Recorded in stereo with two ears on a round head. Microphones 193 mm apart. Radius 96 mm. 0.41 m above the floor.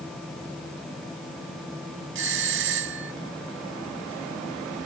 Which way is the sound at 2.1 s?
65° right (ahead or behind).